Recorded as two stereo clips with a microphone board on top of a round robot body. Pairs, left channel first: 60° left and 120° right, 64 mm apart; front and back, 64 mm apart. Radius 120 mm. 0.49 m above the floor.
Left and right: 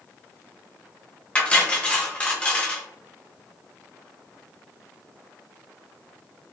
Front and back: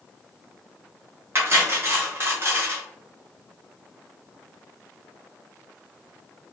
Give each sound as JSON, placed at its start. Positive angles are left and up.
{"t": 1.4, "sound": "cutlery clinking", "azimuth_deg": 130, "distance_m": 0.9}